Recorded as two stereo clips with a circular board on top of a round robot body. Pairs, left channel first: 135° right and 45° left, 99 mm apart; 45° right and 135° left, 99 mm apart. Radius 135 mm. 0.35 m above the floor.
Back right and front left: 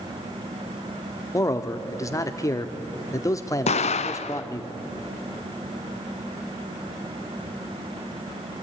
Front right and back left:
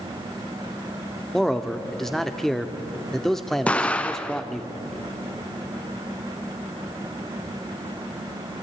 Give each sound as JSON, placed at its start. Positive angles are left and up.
{"t": 1.3, "sound": "a man speaking", "azimuth_deg": -130, "distance_m": 1.3}
{"t": 3.7, "sound": "an explosion", "azimuth_deg": -125, "distance_m": 0.7}